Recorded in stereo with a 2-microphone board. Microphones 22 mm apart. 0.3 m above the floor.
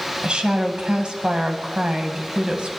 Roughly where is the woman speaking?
Right.